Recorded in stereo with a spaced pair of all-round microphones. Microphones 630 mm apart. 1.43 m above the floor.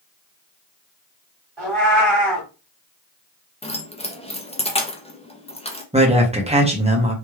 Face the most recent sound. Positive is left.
turn(degrees=-10)  # may be behind; listen again after turning